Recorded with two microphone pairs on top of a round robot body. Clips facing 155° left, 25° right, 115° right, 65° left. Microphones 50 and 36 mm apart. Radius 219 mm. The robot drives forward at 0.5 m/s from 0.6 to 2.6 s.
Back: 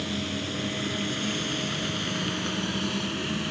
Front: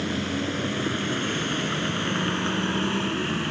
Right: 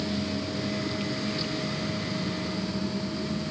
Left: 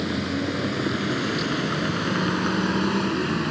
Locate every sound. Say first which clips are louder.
0.0 s a vehicle: front 4 dB, left 5 dB; 30° left; by 3.5 s 40° left